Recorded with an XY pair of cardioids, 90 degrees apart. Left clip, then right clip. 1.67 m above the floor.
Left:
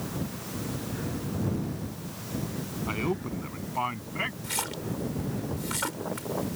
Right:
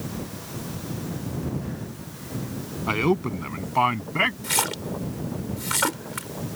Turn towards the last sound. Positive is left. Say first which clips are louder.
# right 7 dB
turn(degrees=-55)